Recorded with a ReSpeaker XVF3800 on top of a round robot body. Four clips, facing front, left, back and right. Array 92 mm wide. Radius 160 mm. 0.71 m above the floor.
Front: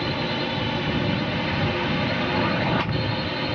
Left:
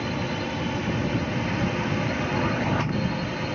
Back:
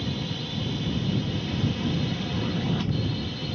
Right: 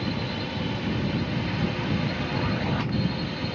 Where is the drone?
20° left.